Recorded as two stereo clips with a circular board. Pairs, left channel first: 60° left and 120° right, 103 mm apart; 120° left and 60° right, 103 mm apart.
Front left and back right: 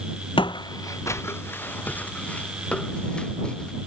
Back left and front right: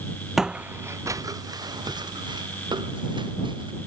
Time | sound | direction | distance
0.4 | footsteps | 30° left | ?